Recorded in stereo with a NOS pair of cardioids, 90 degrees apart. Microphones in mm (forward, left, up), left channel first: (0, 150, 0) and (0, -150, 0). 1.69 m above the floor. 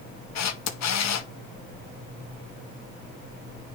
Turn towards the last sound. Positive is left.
turn(degrees=60)